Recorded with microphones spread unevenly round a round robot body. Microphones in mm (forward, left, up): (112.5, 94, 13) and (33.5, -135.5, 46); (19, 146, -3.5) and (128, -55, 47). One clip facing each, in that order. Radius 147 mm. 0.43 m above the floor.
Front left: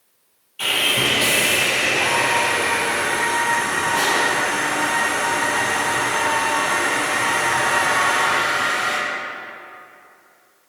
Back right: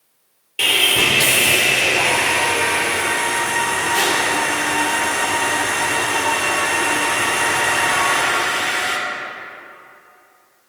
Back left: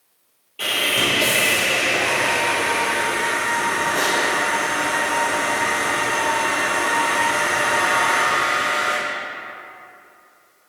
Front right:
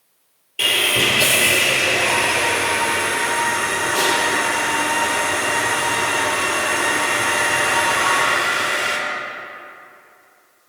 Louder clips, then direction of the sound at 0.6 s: Back right 2 dB, front right 2 dB; 115° right.